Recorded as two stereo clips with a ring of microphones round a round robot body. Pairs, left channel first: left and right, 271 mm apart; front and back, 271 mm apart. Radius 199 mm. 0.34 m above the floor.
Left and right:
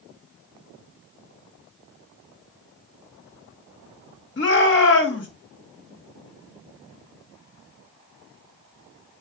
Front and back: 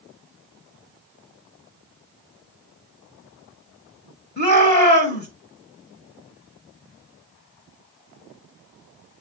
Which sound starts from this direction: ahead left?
A shout, at 4.4 s.